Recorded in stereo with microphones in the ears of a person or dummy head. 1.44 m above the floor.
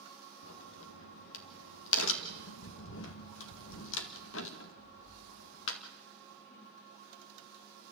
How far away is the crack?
About 1.9 m.